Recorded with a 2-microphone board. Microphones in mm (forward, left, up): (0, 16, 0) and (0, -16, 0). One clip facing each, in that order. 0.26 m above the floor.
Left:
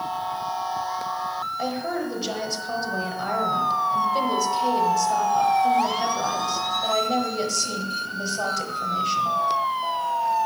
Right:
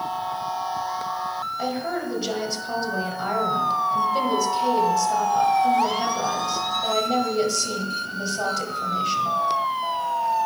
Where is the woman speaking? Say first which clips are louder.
Right 1 dB; centre (ahead or behind), 1.3 m.